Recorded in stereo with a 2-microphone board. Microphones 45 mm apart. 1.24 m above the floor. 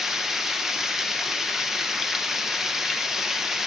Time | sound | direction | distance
0.0 | running water | 5° right (ahead or behind) | 0.9 m